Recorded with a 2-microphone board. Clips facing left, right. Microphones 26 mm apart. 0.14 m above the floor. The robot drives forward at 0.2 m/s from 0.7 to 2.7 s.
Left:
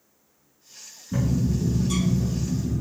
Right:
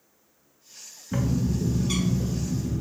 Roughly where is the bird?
Right.